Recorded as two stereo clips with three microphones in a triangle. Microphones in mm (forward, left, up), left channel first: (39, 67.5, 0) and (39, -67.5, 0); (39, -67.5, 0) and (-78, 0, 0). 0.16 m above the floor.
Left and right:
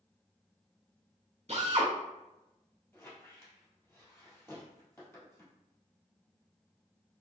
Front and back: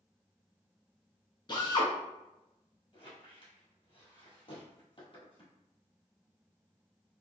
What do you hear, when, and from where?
1.5 s a drill: 75° right, 1.3 m
2.9 s a squeak: 20° left, 1.8 m